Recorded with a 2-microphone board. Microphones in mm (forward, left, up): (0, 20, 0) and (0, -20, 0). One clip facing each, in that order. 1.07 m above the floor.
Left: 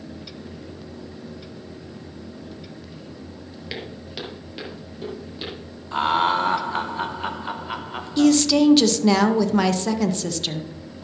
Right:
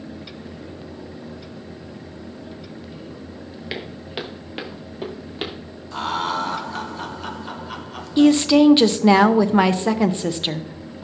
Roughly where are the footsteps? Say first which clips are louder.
Right 3 dB; centre.